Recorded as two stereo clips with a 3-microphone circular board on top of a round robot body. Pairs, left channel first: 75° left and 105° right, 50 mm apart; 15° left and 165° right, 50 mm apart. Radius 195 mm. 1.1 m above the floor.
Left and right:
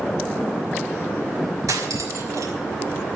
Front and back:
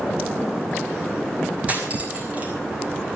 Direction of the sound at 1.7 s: 100° right.